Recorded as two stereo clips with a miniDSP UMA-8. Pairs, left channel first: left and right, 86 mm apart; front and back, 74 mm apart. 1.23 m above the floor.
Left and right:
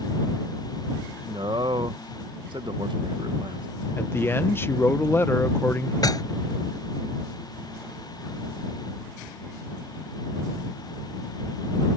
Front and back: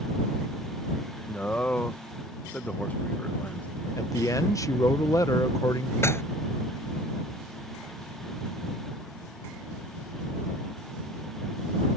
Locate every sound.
1.3 s a man speaking: 70° right
4.0 s a man speaking: 30° left
6.0 s dishes clattering: 50° left